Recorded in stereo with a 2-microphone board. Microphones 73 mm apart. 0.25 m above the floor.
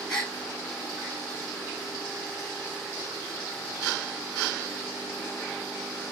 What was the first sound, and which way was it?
A gasp, 5° left (ahead or behind).